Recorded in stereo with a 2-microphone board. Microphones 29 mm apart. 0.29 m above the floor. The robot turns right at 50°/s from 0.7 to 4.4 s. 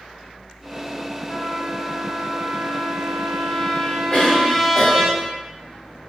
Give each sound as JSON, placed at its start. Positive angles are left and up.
{"t": 1.3, "sound": "a trumpet", "azimuth_deg": 25, "distance_m": 0.5}
{"t": 4.1, "sound": "a cough", "side_deg": 35, "distance_m": 1.4}